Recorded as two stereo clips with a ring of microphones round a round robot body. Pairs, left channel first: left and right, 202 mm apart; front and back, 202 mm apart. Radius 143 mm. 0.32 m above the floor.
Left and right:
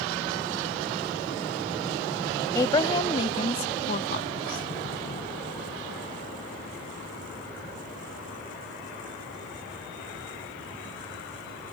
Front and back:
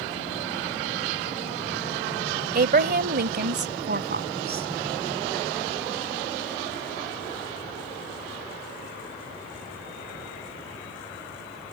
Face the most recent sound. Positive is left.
turn(degrees=150)